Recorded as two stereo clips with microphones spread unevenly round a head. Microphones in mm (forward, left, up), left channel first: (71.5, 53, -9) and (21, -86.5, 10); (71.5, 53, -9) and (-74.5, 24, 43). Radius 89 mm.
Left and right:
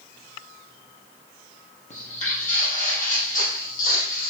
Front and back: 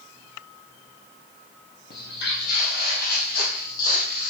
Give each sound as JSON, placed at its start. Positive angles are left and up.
{"t": 1.9, "sound": "footsteps", "azimuth_deg": 35, "distance_m": 2.5}